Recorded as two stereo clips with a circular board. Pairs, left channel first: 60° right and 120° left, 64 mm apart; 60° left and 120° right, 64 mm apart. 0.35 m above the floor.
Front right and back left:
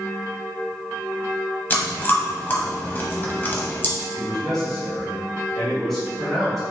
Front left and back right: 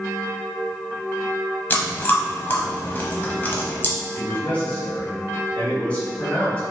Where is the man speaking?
20° left, 1.4 m.